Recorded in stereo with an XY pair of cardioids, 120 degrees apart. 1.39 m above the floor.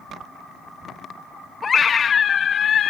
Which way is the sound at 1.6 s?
30° left.